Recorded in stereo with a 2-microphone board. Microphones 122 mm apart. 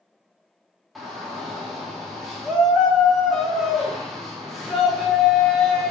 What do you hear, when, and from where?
0.9 s a shout: centre (ahead or behind), 0.7 m